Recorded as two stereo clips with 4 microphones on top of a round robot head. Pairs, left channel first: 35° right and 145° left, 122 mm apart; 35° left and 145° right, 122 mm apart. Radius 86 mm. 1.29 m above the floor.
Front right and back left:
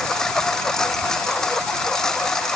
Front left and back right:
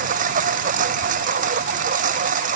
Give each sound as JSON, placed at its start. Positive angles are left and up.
{"t": 0.0, "sound": "a lawn mower", "azimuth_deg": -120}